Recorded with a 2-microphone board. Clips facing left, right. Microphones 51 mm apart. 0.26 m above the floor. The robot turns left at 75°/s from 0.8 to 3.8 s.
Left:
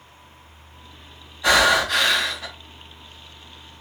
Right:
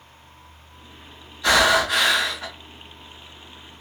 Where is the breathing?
30° left, 1.4 m; by 2.5 s 50° right, 1.4 m.